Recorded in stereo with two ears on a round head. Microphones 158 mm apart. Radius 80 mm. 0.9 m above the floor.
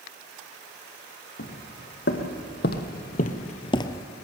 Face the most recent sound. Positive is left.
turn(degrees=10)  # may be behind; listen again after turning